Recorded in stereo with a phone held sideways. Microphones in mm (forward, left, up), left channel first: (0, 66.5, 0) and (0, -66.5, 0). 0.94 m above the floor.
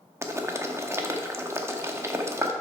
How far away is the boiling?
About 0.8 m.